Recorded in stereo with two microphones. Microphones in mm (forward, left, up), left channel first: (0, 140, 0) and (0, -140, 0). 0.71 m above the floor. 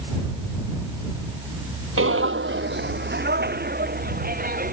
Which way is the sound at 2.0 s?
50° right (ahead or behind).